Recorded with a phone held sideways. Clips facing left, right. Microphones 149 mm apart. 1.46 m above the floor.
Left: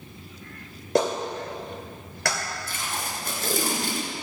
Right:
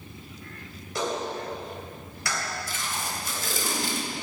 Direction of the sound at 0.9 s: 75° left (ahead or behind).